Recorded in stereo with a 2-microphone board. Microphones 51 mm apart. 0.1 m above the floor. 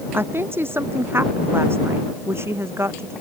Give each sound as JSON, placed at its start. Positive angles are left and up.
{"t": 0.1, "sound": "a woman speaking", "side_deg": -50}